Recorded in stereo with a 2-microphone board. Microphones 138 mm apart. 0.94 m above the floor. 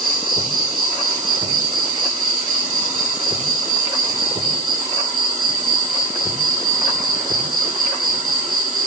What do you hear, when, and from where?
0.0 s an insect: 80° right, 1.1 m